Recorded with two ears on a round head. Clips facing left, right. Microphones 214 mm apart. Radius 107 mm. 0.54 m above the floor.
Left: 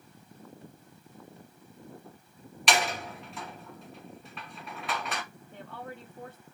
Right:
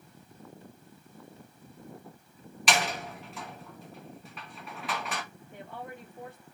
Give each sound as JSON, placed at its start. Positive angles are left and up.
{"t": 2.7, "sound": "a door slam", "side_deg": 0, "distance_m": 4.5}
{"t": 5.5, "sound": "a woman speaking", "side_deg": -10, "distance_m": 3.0}